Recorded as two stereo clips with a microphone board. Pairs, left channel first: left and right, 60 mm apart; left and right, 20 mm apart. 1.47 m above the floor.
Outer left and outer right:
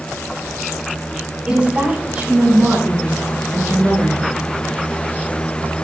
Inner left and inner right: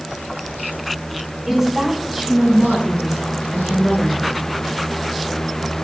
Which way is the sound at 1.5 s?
15° right (ahead or behind).